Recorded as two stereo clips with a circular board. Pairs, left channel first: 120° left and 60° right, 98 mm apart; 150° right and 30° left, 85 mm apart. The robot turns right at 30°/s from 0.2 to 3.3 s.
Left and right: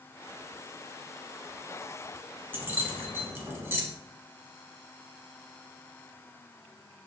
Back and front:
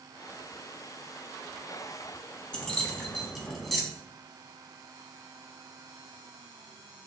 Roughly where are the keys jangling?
Right.